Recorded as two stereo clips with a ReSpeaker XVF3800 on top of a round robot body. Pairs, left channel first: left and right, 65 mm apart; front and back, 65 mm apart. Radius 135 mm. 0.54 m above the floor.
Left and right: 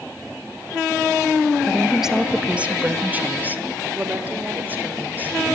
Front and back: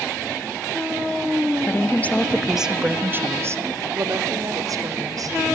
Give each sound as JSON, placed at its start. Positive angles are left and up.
{"t": 1.6, "sound": "a woman speaking", "azimuth_deg": 0, "distance_m": 1.3}